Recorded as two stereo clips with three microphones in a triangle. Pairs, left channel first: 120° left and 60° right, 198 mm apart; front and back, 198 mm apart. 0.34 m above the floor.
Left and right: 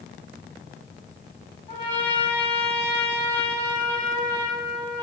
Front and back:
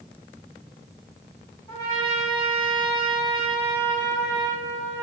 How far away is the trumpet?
About 1.5 m.